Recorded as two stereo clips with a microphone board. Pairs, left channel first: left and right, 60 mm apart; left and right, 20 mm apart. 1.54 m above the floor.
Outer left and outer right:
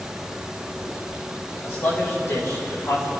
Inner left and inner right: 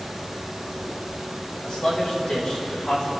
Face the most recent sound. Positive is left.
turn(degrees=60)  # may be behind; listen again after turning